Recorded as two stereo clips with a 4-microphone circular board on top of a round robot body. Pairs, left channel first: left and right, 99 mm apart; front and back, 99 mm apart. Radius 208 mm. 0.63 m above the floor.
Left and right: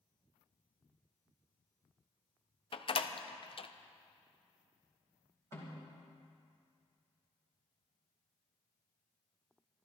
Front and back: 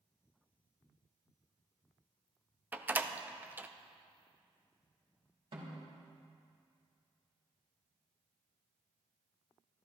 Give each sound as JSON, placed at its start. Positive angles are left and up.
{"t": 2.7, "sound": "a door slam", "azimuth_deg": 110, "distance_m": 0.8}
{"t": 5.5, "sound": "a snare drum", "azimuth_deg": 150, "distance_m": 4.0}